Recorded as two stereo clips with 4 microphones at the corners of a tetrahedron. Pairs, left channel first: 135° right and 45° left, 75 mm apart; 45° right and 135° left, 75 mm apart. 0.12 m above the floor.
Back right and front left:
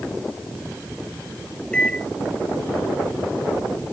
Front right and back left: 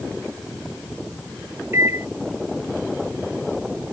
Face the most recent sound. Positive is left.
turn(degrees=155)